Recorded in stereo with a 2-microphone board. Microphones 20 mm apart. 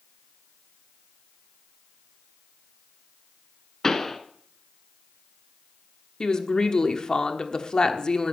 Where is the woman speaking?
45° left (ahead or behind), 1.1 m.